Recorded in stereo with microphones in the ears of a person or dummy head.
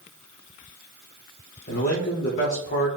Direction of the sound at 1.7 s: 45° left (ahead or behind).